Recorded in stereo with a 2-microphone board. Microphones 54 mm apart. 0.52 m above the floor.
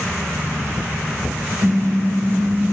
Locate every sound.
1.6 s a car horn: 70° right (ahead or behind), 9.5 m